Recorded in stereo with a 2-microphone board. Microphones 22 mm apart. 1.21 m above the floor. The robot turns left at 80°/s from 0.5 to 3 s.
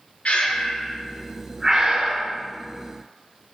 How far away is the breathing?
About 0.5 m.